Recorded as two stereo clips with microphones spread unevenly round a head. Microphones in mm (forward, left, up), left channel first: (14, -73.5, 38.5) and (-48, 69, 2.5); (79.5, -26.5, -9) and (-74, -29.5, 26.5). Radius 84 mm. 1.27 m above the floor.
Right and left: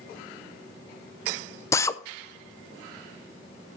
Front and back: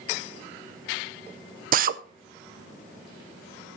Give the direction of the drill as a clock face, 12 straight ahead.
5 o'clock.